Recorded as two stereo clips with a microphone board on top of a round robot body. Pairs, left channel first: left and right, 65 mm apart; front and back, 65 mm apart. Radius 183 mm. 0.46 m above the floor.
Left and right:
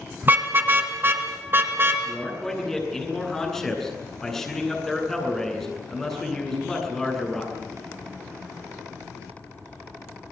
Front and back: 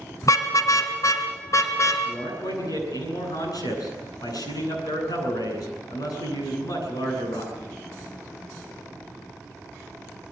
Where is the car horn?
30° right, 2.5 m; by 2.0 s 35° right, 3.5 m.